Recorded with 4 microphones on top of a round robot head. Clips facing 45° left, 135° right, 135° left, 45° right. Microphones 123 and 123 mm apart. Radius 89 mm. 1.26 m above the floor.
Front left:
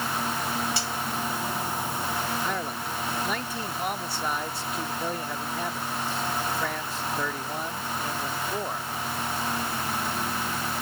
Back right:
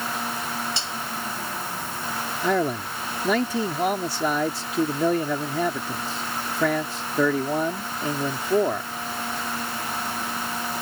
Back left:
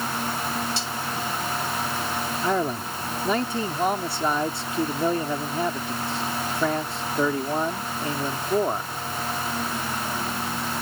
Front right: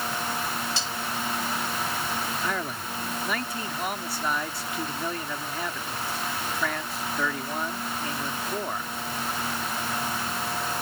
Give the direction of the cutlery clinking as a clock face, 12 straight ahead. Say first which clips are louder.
Front left 2 dB, back left 2 dB; 2 o'clock.